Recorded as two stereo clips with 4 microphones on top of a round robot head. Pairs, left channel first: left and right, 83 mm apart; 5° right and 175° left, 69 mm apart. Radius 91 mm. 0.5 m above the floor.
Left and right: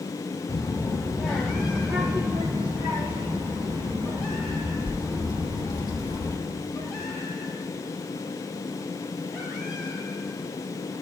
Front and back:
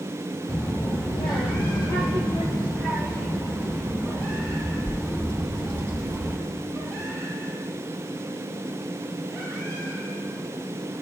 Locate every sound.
0.5 s a child speaking: 55° left, 1.7 m; by 6.4 s 75° right, 6 m